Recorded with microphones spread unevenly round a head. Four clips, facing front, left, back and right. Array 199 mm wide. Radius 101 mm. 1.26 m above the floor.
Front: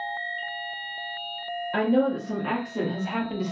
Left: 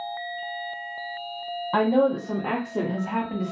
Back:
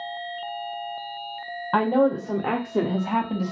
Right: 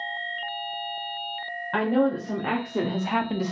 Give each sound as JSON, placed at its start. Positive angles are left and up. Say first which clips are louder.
{"t": 1.7, "sound": "a woman speaking", "louder": "left 2 dB, back 3 dB", "azimuth_deg": 170, "distance_m": 1.0}